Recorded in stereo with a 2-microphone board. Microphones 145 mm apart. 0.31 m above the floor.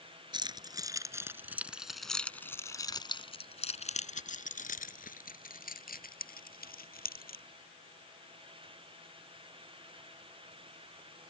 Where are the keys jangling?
30° right (ahead or behind); by 7.4 s 85° left.